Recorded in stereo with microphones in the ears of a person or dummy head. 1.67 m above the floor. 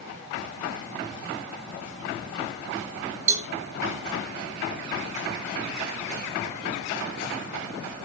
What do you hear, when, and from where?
3.3 s a cowbell: 50° right (ahead or behind), 3 m